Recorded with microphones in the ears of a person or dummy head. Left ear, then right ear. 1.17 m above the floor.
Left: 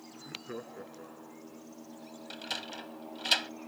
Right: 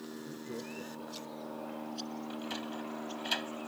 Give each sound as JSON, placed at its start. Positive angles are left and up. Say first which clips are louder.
{"t": 0.1, "sound": "laughter", "louder": "left 4 dB", "side_deg": 65}
{"t": 2.3, "sound": "a sliding door", "louder": "left 6 dB", "side_deg": 30}